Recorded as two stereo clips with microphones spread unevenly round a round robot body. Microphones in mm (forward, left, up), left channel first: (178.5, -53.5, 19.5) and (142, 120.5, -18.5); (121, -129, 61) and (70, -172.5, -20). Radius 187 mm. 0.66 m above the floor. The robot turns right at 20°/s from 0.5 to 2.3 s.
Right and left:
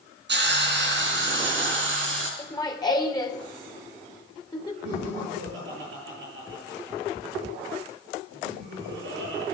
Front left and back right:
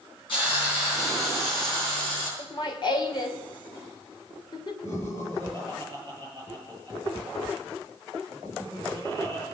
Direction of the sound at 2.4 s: 5° right.